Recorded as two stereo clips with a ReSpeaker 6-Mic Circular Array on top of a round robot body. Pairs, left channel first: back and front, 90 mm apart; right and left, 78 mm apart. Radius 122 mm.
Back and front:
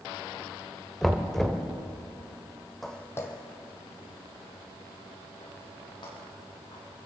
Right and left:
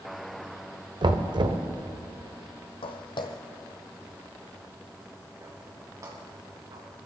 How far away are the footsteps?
About 1.2 m.